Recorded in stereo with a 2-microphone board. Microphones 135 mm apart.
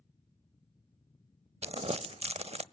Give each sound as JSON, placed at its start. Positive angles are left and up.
{"t": 1.6, "sound": "crumpling", "side_deg": -50, "distance_m": 0.6}